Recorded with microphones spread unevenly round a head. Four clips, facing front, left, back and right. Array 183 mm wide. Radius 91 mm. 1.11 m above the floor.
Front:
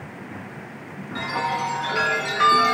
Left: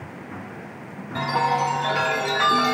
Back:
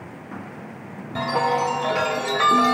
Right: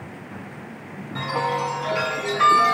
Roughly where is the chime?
Behind.